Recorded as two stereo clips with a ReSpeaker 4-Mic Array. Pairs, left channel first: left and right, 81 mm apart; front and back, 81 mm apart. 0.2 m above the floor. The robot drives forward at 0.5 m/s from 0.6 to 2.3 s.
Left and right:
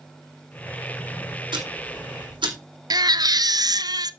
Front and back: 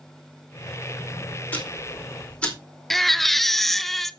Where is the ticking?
70° right, 4 m; by 2.5 s 75° right, 4 m.